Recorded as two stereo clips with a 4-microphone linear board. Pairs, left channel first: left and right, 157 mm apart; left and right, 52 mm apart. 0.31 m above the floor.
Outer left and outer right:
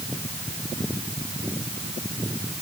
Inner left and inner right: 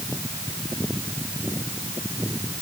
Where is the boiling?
I don't hear boiling.